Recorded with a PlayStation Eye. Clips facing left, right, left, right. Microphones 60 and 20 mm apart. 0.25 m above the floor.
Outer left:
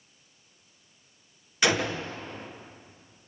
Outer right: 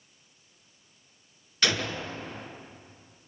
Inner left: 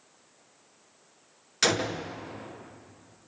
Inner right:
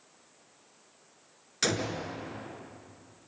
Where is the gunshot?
15° left (ahead or behind), 2 m.